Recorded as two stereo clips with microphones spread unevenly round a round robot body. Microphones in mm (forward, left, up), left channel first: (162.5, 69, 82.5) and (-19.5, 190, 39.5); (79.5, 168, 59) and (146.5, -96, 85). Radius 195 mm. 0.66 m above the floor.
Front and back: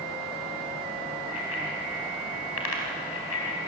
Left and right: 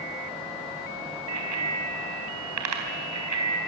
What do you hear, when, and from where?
1.3 s a bicycle bell: 65° right, 4 m